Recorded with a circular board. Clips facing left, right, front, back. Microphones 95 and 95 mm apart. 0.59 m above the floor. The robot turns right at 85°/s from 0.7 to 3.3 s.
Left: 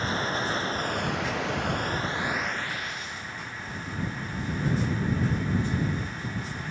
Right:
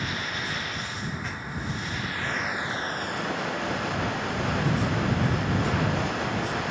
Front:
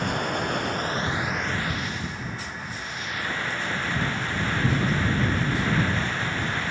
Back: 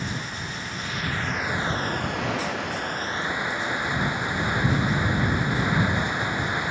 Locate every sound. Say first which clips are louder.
0.0 s running water: left 4 dB, front 7 dB; 35° left; by 6.7 s 105° right